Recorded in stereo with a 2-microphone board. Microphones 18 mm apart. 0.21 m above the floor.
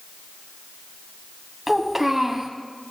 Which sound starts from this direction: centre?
A child speaking, at 1.7 s.